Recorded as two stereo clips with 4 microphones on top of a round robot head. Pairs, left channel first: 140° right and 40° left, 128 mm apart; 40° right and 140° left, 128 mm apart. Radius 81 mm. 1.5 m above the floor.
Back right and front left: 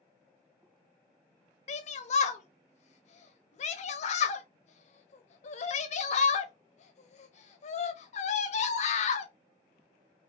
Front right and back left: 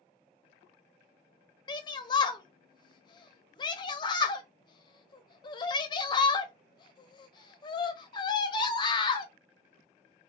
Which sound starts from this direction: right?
A shout, at 1.7 s.